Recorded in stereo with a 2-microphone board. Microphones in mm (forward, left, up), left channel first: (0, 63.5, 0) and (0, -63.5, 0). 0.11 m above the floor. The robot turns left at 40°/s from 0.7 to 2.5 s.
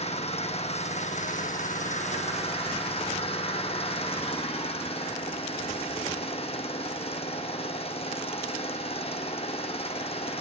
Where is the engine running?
125° left, 1.9 m; by 10.4 s 55° left, 1.9 m.